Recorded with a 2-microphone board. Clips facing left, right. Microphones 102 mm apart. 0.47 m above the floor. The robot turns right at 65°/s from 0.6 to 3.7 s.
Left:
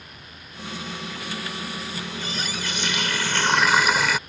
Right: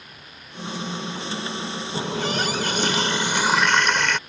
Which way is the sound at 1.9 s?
110° right.